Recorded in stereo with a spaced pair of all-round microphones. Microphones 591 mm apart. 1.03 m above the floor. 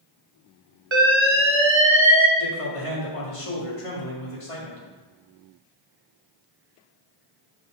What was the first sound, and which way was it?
An alarm, 50° right (ahead or behind).